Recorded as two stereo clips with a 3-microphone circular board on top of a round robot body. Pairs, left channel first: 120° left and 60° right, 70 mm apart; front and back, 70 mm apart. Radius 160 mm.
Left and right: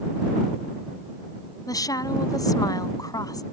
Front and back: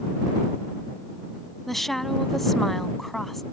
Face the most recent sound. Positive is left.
turn(degrees=85)